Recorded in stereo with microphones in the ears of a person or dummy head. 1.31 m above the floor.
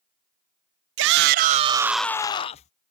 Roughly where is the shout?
Right.